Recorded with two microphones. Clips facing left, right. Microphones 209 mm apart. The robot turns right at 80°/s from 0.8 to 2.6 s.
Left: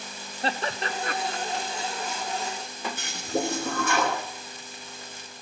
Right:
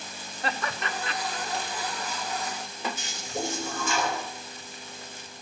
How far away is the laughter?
About 0.6 m.